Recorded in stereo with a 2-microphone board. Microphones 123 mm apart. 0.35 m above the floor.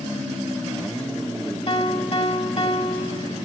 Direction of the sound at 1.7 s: 50° left (ahead or behind).